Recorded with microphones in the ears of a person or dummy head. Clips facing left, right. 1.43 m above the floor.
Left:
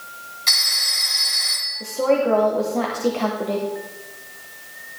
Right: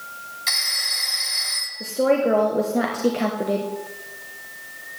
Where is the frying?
I don't hear frying.